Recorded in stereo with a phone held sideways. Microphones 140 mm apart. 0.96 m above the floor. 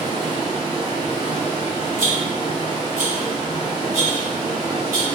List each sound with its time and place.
0.0 s running water: 30° right (ahead or behind), 1.2 m
2.0 s a rattle: 75° right (ahead or behind), 1.8 m